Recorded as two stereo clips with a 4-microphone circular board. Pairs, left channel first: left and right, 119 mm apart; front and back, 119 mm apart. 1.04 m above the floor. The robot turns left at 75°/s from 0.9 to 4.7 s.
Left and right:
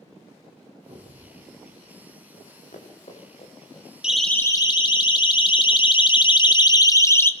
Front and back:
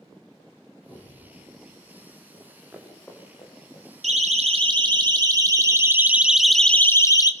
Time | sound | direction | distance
0.9 | an explosion | 115° right | 8.5 m
2.3 | running footsteps | 130° left | 7.5 m
4.0 | a siren | 170° right | 3 m